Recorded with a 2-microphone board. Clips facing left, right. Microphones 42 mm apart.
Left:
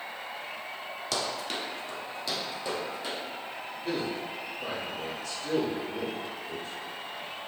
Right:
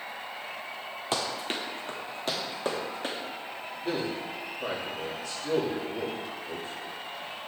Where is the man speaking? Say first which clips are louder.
Right 1 dB; 5° right (ahead or behind), 1.7 m.